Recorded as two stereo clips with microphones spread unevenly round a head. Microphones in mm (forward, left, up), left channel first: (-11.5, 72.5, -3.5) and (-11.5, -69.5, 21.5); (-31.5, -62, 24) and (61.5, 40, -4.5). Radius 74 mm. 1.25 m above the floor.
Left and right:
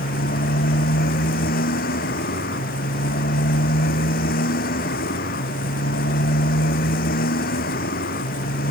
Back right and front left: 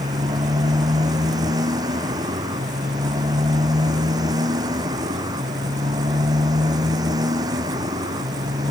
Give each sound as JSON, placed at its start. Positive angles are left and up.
{"t": 0.0, "sound": "a motorcycle", "azimuth_deg": 115}